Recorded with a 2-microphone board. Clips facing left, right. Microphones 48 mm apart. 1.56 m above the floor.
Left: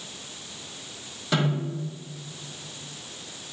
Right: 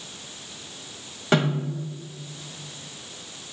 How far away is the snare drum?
About 1.9 m.